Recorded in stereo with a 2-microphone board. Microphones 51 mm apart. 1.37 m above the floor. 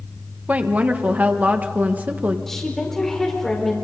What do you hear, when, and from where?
0.5 s a woman speaking: 30° right (ahead or behind), 1.2 m
2.5 s a woman speaking: 5° left (ahead or behind), 4.5 m